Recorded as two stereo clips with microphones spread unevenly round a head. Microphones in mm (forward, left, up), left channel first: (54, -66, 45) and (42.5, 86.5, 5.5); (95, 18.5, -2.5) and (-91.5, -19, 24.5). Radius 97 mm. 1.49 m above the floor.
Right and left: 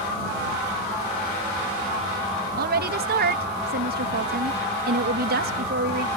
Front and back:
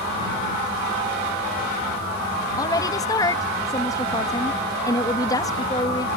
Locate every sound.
2.6 s a woman speaking: 85° left